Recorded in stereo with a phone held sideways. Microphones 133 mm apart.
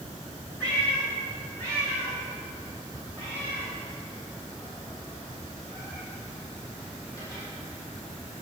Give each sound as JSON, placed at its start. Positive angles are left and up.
{"t": 0.6, "sound": "a cat meowing", "side_deg": 10, "distance_m": 3.0}